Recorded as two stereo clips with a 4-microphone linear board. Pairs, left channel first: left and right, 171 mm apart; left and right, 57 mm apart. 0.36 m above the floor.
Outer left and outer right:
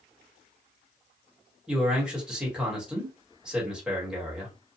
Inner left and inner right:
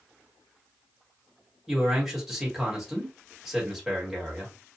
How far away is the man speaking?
About 1.4 m.